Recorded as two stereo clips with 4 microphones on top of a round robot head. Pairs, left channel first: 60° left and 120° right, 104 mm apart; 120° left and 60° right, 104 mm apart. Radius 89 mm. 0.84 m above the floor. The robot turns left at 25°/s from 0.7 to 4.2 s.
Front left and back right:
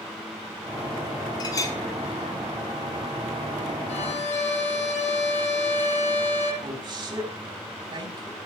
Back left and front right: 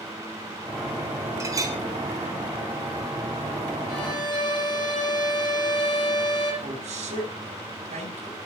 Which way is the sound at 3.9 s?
80° left.